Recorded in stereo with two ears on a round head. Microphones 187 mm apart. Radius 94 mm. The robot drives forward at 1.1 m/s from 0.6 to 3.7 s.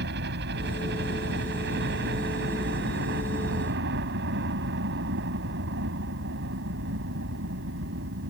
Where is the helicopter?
55° right (ahead or behind); by 8.3 s 60° right (ahead or behind).